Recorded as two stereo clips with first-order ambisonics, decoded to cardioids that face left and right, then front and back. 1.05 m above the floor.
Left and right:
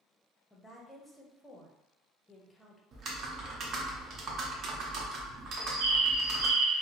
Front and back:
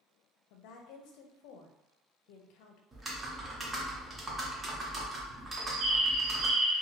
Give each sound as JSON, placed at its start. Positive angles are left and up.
{"t": 0.5, "sound": "a woman speaking", "azimuth_deg": 5, "distance_m": 0.5}
{"t": 2.9, "sound": "typing on a keyboard", "azimuth_deg": -115, "distance_m": 0.6}
{"t": 5.5, "sound": "a bird", "azimuth_deg": -120, "distance_m": 0.6}